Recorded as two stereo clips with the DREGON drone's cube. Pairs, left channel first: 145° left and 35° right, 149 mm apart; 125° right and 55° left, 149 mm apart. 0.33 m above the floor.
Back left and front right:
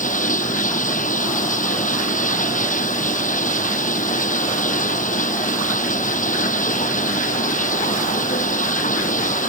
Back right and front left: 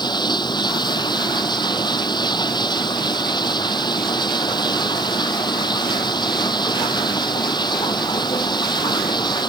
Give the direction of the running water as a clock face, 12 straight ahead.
6 o'clock.